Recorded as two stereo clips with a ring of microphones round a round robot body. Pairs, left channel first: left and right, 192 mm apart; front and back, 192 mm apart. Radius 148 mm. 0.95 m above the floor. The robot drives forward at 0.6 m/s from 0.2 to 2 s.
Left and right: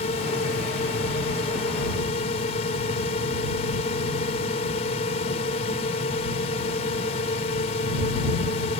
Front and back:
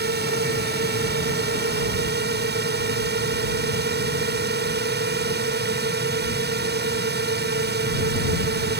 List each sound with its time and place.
0.0 s a drone: 155° left